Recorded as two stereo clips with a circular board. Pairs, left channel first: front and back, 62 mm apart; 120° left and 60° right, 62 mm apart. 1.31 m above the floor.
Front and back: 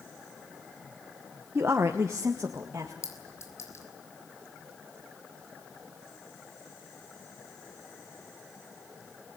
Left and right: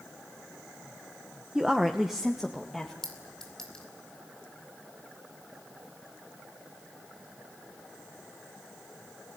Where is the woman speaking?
135° right, 1.0 m; by 2.9 s 150° right, 2 m.